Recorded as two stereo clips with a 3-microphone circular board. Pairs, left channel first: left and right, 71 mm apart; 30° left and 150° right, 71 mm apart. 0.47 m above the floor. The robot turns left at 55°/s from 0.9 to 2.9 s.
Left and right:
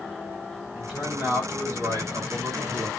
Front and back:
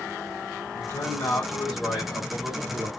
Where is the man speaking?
5° right, 1.7 m; by 2.9 s 115° right, 1.7 m.